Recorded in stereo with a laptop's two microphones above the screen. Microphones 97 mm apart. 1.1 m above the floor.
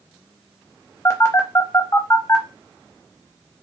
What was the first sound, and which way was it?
A phone buzzing, 25° left (ahead or behind).